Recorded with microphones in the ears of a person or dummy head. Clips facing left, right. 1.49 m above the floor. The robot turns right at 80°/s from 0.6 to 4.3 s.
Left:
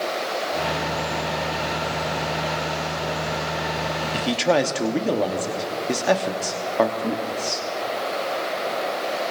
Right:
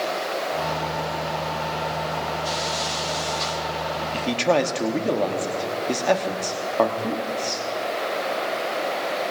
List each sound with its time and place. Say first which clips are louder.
4.1 s a man speaking: even; 15° left (ahead or behind), 1.1 m; by 7.7 s 5° left (ahead or behind), 1.1 m